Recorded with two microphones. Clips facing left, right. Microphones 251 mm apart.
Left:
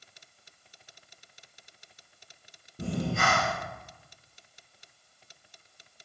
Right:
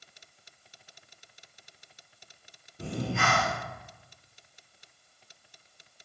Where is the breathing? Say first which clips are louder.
Left 2 dB; 45° left (ahead or behind), 1.8 m.